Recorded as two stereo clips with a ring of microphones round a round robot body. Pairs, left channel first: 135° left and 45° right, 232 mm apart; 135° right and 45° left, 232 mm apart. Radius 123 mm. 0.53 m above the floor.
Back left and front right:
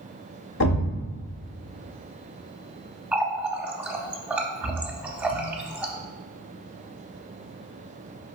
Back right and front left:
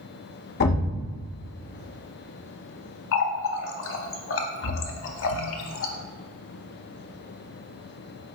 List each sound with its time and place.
0.6 s a thud: 175° left, 0.6 m
3.1 s a running tap: 130° right, 0.7 m